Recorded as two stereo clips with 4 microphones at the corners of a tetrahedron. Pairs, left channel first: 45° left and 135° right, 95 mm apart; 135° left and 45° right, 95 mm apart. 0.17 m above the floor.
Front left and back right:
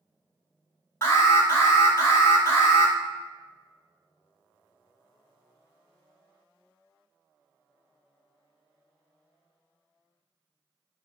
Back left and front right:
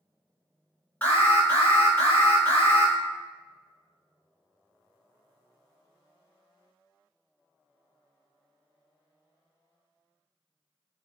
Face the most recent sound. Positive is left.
turn(degrees=80)